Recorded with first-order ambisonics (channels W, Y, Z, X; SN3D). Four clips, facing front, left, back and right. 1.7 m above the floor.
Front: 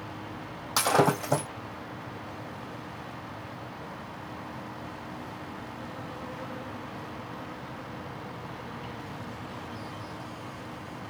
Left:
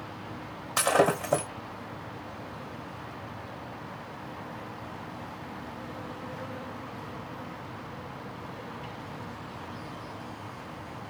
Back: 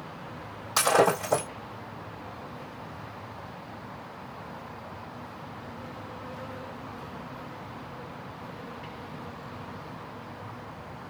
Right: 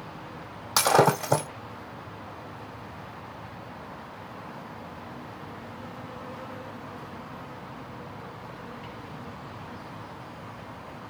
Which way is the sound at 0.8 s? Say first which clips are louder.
Right 3 dB, back 2 dB; 80° right.